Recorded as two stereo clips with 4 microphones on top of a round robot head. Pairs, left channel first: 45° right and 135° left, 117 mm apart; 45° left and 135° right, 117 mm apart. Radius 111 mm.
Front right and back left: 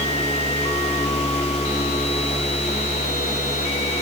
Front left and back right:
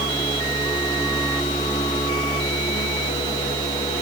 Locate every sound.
Only background noise.